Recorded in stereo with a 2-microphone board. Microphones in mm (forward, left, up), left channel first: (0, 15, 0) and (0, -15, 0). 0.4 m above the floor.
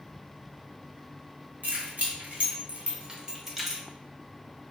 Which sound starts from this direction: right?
Keys jangling, at 1.6 s.